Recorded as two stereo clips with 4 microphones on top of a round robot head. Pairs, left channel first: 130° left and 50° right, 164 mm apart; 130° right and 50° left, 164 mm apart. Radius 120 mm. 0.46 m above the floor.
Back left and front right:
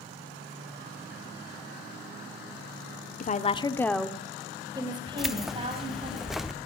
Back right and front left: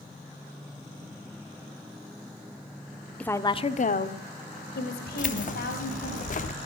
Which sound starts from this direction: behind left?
A woman speaking, at 3.2 s.